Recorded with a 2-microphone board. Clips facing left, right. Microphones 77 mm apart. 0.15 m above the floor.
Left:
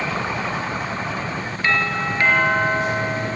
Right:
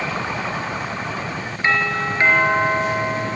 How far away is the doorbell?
About 4 m.